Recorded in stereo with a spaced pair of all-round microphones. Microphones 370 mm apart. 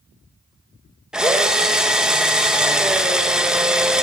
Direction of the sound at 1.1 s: Centre (ahead or behind).